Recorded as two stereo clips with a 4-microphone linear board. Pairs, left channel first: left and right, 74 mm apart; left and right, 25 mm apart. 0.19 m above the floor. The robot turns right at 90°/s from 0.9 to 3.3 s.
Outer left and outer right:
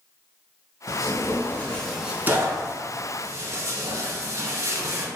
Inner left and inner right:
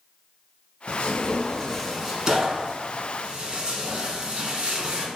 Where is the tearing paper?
60° left (ahead or behind), 0.8 m; by 5.1 s 45° right (ahead or behind), 0.8 m.